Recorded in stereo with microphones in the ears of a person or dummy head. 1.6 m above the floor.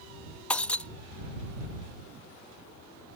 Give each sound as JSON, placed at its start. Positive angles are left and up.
{"t": 0.5, "sound": "breaking glass", "side_deg": 5}